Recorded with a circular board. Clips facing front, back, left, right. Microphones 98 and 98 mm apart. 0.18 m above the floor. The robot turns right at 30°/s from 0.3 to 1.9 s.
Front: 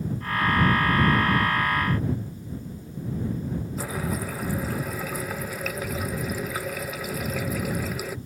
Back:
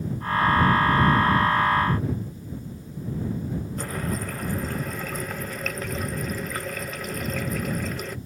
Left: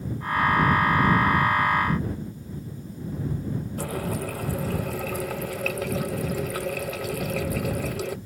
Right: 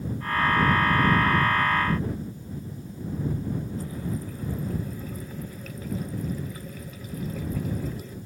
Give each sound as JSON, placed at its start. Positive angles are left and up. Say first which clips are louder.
{"t": 3.8, "sound": "a running tap", "louder": "front 1 dB, left 4 dB", "azimuth_deg": 85}